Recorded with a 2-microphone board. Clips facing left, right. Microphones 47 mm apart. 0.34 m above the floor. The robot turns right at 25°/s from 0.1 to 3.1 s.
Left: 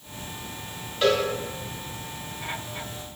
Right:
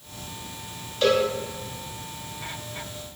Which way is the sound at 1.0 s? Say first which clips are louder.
Right 1 dB; 15° left (ahead or behind).